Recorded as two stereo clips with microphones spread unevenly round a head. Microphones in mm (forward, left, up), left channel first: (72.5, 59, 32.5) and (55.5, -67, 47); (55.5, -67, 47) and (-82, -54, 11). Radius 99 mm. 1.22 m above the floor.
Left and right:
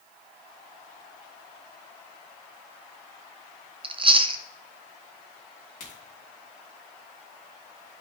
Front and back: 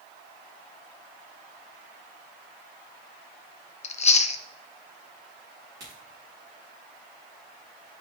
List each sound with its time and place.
3.8 s chewing: 45° right, 0.6 m
5.8 s a crack: 105° left, 3 m